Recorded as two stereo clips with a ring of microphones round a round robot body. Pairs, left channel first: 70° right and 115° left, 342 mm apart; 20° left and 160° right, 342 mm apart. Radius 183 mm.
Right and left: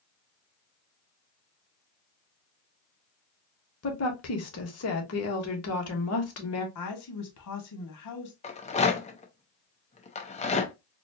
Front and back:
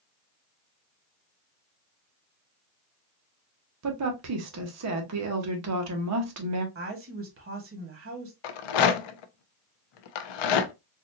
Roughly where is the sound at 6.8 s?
Right.